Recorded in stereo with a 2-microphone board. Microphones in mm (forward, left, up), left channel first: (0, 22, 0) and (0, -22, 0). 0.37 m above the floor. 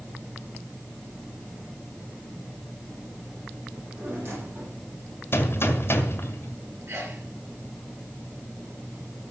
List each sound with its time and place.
3.7 s a drawer: 60° right (ahead or behind), 8.5 m
5.3 s a gunshot: 55° left (ahead or behind), 2.5 m
6.9 s a sneeze: 60° right (ahead or behind), 7 m